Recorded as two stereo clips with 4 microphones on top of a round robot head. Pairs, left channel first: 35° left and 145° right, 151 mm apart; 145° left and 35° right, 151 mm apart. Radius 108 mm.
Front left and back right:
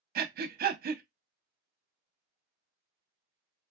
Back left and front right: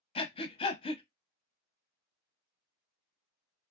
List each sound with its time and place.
0.1 s breathing: 165° right, 0.5 m